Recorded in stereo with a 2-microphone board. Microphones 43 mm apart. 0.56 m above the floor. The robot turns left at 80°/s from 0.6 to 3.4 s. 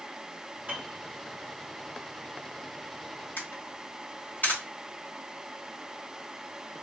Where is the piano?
30° right (ahead or behind), 1.6 m; by 1.0 s 50° right (ahead or behind), 1.6 m.